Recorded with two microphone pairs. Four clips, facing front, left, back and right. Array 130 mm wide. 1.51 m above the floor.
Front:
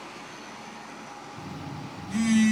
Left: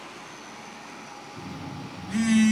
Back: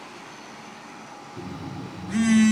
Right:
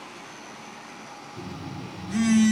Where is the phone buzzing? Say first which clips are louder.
Right 1 dB, back 5 dB; 175° left, 0.9 m.